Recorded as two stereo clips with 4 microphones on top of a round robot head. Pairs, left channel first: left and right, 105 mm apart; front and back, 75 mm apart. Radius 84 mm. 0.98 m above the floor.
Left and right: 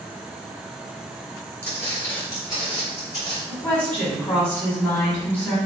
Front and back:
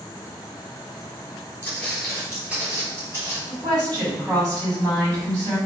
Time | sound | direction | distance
1.6 | footsteps | 30° left | 1.0 m
3.5 | a woman speaking | 165° left | 1.9 m